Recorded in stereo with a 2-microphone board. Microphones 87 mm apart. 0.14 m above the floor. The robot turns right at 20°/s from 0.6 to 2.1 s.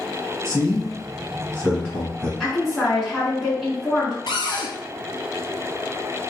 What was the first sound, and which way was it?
A man speaking, 5° left (ahead or behind).